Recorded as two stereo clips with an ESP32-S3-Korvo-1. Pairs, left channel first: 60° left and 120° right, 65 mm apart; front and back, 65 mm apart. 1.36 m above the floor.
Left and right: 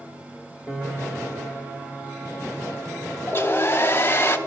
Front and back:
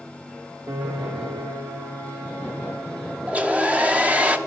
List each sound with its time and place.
0.7 s a piano: 160° left, 1.5 m
3.3 s a hair dryer: 115° left, 0.9 m